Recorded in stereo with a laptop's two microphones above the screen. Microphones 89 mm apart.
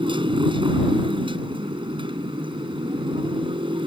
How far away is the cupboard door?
No cupboard door in this recording.